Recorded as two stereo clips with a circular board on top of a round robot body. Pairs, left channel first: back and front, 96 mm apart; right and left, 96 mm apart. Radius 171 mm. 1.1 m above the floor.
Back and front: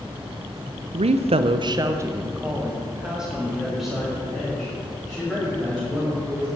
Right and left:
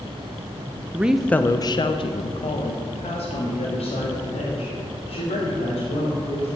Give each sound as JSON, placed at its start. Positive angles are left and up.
{"t": 0.9, "sound": "a woman speaking", "azimuth_deg": 15, "distance_m": 0.6}